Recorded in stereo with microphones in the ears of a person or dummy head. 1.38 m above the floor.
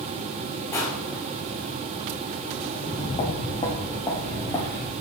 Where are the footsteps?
45° left (ahead or behind), 2.5 m; by 4.9 s 10° left (ahead or behind), 3.5 m.